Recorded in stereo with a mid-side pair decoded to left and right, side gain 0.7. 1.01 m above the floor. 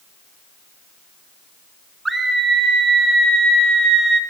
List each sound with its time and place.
2.0 s a scream: 15° right, 5 m